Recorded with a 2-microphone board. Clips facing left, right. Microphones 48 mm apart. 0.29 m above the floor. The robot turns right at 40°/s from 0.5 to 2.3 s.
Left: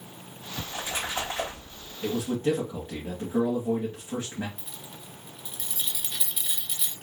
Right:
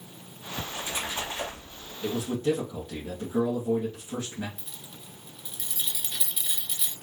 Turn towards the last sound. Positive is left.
turn(degrees=5)  # may be behind; listen again after turning